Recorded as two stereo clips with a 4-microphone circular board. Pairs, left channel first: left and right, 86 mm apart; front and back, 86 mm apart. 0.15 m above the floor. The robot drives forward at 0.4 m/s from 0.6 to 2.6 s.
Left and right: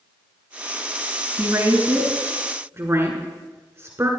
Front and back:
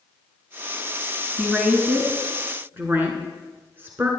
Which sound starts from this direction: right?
A woman speaking, at 1.4 s.